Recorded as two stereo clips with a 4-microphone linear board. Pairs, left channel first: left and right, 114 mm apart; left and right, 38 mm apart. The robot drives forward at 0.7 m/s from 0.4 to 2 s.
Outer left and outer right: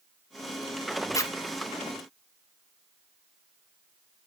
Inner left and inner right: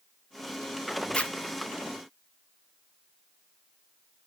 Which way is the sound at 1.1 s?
30° left (ahead or behind).